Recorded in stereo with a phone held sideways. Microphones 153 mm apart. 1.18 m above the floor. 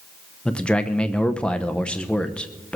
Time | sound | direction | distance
0.5 | a man speaking | 5° left (ahead or behind) | 0.8 m